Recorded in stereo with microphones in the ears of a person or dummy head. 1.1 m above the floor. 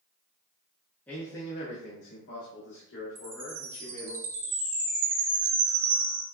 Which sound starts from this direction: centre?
A man speaking, at 1.1 s.